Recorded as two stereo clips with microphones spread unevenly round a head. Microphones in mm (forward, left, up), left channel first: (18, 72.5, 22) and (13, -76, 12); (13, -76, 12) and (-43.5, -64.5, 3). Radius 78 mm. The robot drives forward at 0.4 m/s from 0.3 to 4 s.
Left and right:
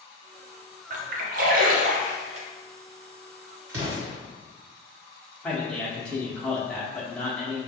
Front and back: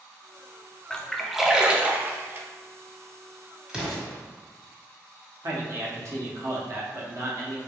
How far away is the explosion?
About 1.4 m.